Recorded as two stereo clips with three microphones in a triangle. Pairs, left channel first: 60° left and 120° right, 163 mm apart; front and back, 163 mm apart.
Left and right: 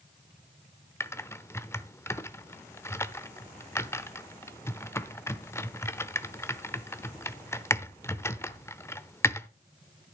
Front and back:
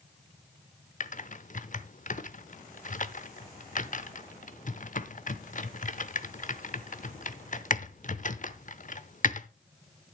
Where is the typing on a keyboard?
10° right, 0.8 m.